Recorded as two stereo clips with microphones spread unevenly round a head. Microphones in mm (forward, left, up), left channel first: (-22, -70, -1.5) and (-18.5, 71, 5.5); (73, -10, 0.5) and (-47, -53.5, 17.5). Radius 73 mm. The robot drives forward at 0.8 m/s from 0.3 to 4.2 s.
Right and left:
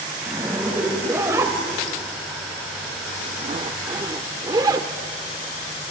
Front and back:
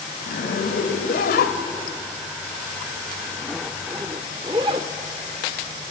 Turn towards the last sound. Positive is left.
turn(degrees=145)